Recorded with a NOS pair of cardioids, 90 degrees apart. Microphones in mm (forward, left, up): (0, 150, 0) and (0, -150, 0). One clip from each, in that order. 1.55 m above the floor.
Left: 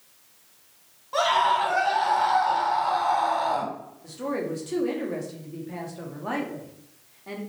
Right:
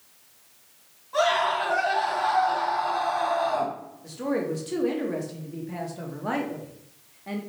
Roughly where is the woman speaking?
Ahead.